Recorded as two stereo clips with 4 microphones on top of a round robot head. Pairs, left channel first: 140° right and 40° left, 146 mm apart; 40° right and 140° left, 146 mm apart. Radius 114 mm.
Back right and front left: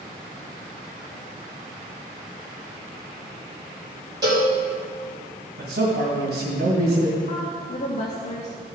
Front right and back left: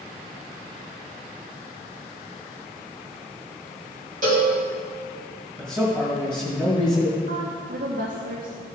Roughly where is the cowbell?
Left.